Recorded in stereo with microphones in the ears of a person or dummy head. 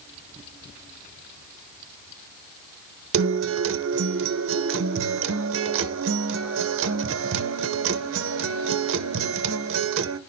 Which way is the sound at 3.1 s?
60° right (ahead or behind).